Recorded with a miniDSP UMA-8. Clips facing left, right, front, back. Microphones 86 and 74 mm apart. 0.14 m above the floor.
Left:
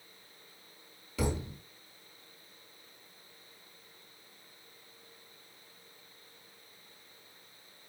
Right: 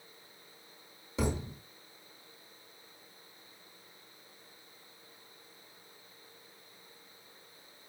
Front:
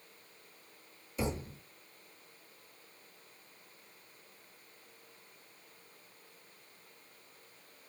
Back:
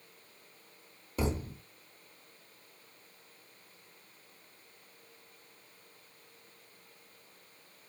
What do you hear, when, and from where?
1.2 s a thud: 150° right, 1.3 m